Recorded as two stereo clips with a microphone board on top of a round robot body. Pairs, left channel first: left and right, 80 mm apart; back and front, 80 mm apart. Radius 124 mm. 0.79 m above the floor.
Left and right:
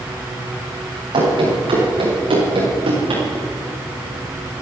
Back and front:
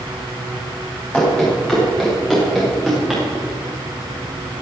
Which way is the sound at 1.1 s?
100° right.